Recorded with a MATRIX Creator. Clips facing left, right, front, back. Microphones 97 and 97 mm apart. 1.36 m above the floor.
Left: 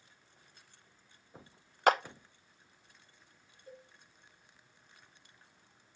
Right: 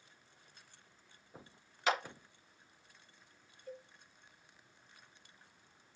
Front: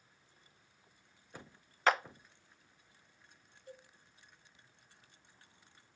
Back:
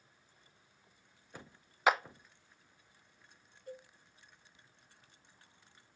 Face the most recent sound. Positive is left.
turn(degrees=145)